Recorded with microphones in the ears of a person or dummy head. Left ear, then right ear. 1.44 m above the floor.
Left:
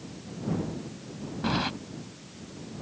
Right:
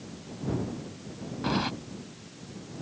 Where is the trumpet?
I don't hear a trumpet.